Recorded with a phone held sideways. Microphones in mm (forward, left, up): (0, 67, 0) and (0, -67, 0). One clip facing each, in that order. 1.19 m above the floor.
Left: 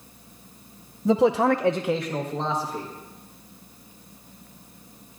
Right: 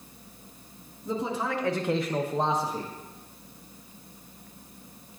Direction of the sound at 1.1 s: 80° left.